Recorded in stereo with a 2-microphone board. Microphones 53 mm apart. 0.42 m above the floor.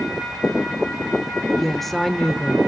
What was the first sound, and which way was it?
A woman speaking, 5° left (ahead or behind).